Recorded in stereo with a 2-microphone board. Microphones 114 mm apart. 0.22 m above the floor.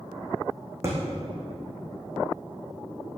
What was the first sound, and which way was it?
A thud, 25° right (ahead or behind).